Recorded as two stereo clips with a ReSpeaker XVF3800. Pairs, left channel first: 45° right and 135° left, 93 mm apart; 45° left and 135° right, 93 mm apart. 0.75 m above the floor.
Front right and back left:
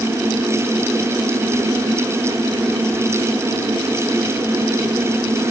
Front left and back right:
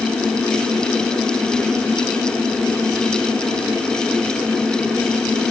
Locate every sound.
Only background noise.